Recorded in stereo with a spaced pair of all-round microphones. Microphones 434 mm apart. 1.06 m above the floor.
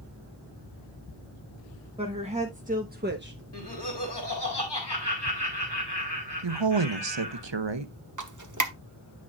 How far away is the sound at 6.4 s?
About 0.9 m.